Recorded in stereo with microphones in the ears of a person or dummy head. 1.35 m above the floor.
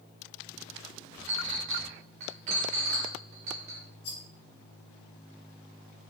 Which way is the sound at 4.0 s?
60° left (ahead or behind).